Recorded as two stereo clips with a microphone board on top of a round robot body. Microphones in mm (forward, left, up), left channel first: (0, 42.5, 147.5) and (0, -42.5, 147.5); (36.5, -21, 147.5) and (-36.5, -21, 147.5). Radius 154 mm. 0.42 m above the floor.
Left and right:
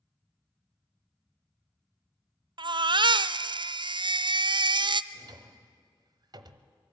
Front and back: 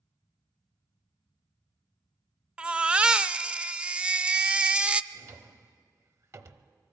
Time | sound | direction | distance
2.6 | a baby crying | 105° right | 0.5 m
5.1 | a drawer | 130° right | 1.0 m